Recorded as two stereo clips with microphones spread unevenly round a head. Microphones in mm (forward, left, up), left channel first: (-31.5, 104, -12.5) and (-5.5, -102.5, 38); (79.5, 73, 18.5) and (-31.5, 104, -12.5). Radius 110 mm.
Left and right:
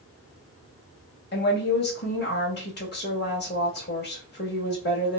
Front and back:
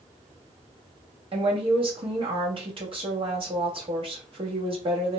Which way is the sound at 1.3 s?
130° left.